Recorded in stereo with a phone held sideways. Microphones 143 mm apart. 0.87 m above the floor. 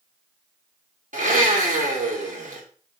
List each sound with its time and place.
1.1 s a blender: 65° right (ahead or behind), 1.9 m